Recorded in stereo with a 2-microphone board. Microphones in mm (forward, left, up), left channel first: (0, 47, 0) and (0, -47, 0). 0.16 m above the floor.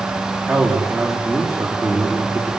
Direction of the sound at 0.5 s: Centre (ahead or behind).